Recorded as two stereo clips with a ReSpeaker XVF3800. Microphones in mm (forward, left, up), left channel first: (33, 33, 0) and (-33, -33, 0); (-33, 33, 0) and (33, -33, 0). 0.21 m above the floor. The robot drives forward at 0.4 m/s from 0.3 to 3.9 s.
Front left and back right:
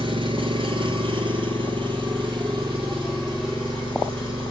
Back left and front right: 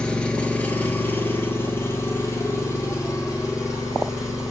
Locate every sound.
0.0 s an engine running: 145° right, 0.8 m; by 4.5 s 170° right, 2 m